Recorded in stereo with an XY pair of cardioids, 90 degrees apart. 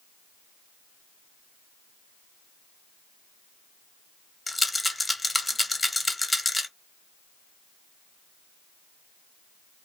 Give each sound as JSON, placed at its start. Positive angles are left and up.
{"t": 4.5, "sound": "a rattle", "azimuth_deg": 15, "distance_m": 1.0}